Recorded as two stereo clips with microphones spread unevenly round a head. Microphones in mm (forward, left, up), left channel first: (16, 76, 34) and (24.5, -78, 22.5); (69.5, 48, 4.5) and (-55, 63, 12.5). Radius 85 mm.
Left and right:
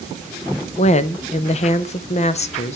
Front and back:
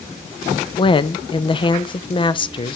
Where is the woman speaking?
45° left, 0.6 m.